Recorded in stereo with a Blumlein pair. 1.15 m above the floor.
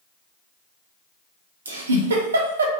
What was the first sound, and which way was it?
A giggle, 70° right.